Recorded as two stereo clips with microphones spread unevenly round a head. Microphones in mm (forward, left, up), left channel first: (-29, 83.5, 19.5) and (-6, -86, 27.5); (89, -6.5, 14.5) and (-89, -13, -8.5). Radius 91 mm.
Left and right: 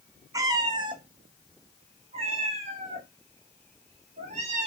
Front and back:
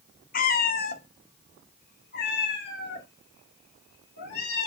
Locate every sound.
0.3 s a cat meowing: 15° right, 0.8 m; by 4.7 s 30° right, 3 m